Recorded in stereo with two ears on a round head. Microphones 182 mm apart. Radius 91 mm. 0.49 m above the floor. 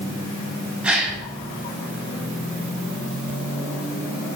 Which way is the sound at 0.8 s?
5° right (ahead or behind).